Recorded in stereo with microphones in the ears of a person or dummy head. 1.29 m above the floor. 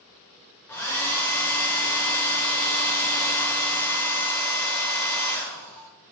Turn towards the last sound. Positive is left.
turn(degrees=10)  # may be behind; listen again after turning